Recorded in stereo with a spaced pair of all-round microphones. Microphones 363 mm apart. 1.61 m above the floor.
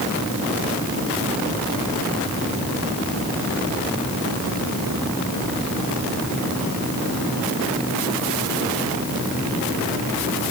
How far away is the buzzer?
I don't hear a buzzer.